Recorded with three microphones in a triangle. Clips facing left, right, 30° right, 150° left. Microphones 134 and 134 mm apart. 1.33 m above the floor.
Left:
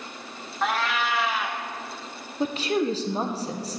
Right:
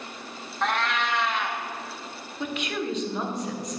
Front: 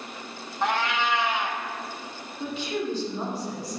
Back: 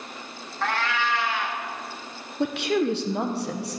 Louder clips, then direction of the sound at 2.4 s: Left 6 dB, back 7 dB; 145° left.